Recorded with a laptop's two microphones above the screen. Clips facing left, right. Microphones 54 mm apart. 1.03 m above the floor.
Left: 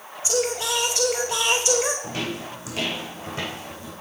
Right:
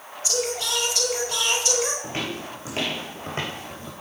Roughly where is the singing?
Centre.